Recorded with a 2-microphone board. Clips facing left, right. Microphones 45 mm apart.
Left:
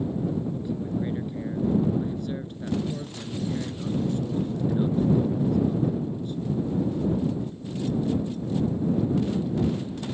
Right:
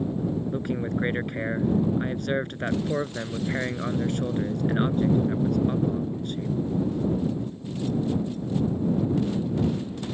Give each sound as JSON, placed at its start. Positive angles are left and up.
{"t": 0.5, "sound": "a man speaking", "side_deg": -65}